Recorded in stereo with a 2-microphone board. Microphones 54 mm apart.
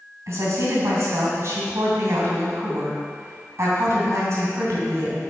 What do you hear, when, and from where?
0.3 s a woman speaking: 60° right (ahead or behind), 2.5 m